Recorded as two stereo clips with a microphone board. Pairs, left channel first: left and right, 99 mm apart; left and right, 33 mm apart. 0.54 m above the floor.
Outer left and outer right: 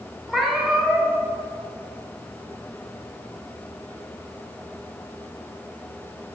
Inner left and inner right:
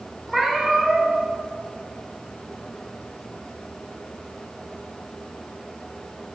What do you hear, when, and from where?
0.3 s a cat meowing: centre (ahead or behind), 0.7 m